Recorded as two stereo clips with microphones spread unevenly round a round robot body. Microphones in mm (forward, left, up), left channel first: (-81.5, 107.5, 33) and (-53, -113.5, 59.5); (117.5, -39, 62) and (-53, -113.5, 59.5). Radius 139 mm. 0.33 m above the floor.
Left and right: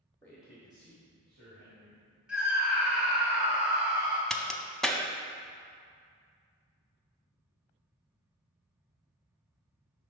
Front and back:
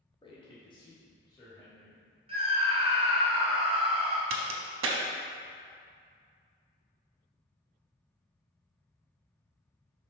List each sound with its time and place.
0.2 s a man speaking: 50° left, 1.1 m; by 2.0 s 50° right, 2 m
2.3 s a scream: 175° right, 1.6 m
4.3 s a crack: 175° right, 0.6 m